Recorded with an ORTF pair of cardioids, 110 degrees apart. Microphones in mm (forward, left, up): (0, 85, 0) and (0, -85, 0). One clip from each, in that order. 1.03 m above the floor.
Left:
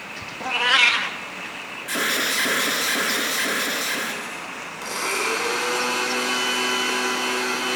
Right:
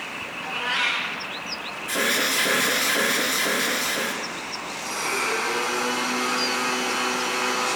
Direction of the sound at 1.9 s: 20° left.